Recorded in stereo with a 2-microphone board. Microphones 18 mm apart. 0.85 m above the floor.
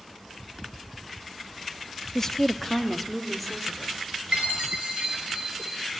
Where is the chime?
60° right (ahead or behind), 7 m.